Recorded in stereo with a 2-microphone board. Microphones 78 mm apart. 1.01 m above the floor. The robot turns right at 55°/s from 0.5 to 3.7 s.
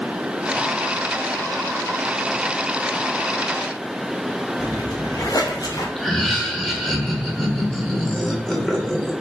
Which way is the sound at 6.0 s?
5° left (ahead or behind).